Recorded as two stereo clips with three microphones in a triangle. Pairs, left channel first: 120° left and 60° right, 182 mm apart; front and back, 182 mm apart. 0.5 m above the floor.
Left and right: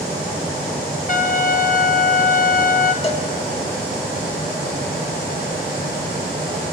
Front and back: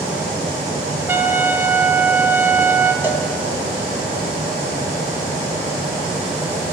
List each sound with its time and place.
1.1 s a trumpet: 110° left, 0.9 m
3.0 s a cowbell: 110° left, 1.2 m